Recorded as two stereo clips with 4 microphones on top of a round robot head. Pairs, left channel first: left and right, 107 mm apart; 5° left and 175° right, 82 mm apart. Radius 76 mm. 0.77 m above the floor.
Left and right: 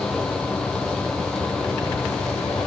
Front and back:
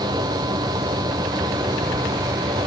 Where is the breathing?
I don't hear breathing.